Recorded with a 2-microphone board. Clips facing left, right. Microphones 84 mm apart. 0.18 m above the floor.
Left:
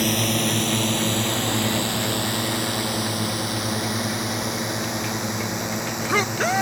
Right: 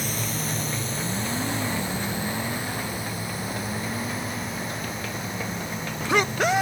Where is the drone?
70° left (ahead or behind); by 6.6 s 80° left.